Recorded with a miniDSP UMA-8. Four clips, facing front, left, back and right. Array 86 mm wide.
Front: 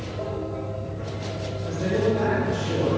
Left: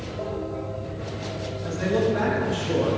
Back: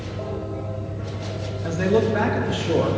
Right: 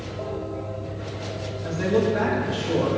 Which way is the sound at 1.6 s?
175° right.